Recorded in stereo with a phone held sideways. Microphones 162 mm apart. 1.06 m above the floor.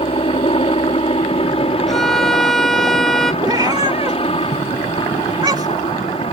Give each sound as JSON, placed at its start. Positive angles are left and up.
{"t": 0.0, "sound": "a helicopter", "side_deg": 35}
{"t": 1.9, "sound": "a violin", "side_deg": 0}
{"t": 3.4, "sound": "a cat meowing", "side_deg": -25}